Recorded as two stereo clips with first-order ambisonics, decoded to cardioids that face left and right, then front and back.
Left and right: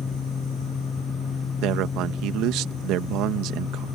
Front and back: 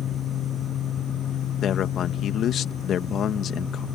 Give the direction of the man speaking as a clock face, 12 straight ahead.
2 o'clock.